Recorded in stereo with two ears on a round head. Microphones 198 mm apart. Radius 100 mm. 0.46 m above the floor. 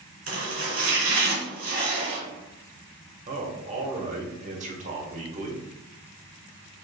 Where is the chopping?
40° right (ahead or behind), 1.7 m.